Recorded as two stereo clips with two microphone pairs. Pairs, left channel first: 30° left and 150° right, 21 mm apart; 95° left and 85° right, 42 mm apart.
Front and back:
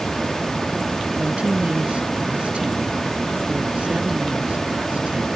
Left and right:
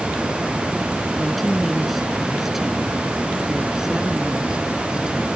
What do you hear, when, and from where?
1.2 s a woman speaking: 175° right; by 5.3 s 150° right